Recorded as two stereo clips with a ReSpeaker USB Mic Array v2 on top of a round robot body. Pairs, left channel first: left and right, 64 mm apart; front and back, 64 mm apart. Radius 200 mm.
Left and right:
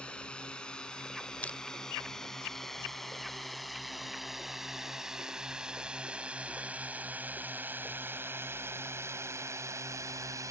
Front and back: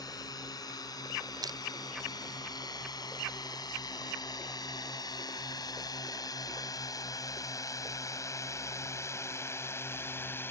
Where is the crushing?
160° left.